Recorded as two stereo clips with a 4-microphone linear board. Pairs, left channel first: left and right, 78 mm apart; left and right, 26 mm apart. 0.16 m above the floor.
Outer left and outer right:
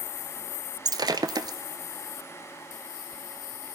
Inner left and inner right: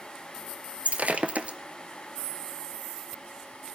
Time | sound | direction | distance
0.8 | breaking glass | 60° right (ahead or behind) | 0.7 m